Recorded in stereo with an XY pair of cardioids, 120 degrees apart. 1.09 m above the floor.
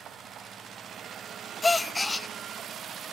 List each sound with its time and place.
1.6 s a gasp: 15° left, 0.8 m